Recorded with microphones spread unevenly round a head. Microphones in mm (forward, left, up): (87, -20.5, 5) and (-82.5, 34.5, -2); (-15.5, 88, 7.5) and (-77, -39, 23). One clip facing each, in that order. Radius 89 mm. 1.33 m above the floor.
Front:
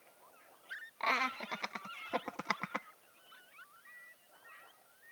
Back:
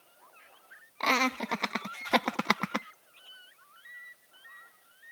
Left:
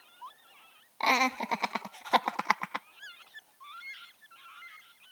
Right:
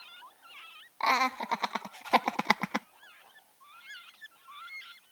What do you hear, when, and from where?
1.0 s laughter: 130° left; by 2.9 s 155° right